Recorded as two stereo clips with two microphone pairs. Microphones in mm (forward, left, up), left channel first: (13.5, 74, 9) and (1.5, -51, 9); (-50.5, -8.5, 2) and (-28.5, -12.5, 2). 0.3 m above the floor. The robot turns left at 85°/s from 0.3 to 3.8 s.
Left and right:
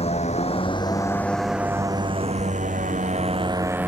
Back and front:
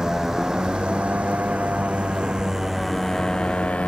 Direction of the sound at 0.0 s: 50° left.